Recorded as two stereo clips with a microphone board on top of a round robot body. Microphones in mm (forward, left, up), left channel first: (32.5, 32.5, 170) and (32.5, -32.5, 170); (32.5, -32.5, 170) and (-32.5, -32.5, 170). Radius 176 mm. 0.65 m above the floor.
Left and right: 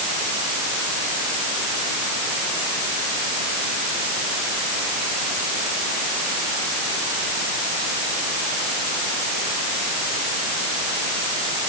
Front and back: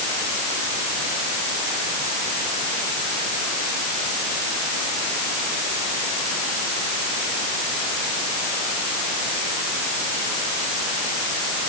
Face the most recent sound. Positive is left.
No sound to turn to.